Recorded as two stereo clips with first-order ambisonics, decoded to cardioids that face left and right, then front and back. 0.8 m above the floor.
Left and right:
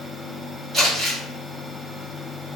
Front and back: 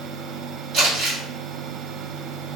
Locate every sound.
0.7 s crumpling: 155° right, 1.7 m